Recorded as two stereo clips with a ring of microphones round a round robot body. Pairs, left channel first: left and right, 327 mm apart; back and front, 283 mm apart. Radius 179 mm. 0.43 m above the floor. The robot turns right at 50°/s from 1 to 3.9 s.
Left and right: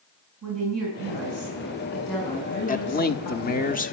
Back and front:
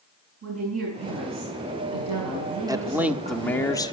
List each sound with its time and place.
0.4 s a woman speaking: 50° right, 6 m; by 3.7 s 85° left, 6 m
2.7 s a man speaking: 60° left, 1.2 m; by 3.9 s 120° left, 1.2 m